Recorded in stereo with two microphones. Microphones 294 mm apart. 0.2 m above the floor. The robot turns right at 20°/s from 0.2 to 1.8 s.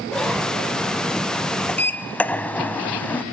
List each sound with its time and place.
1.7 s a sliding door: 5° left (ahead or behind), 0.6 m